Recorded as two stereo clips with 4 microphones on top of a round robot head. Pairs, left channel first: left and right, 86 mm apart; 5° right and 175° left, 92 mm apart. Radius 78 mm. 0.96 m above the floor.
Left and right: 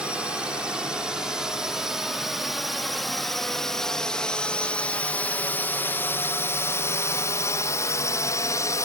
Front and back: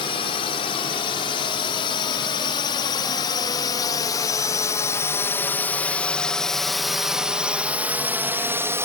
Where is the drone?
10° right; by 8.9 s 125° left.